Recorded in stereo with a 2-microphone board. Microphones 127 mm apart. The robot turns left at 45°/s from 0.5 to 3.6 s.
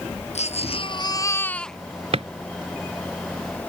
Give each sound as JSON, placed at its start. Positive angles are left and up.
{"t": 0.3, "sound": "a baby crying", "azimuth_deg": 60}
{"t": 2.1, "sound": "a drawer", "side_deg": -55}